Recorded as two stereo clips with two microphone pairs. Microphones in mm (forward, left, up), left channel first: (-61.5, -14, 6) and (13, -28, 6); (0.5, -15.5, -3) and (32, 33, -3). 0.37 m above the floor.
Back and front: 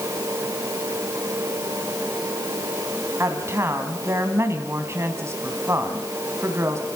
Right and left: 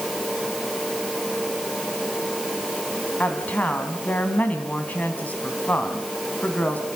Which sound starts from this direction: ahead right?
A woman speaking, at 3.2 s.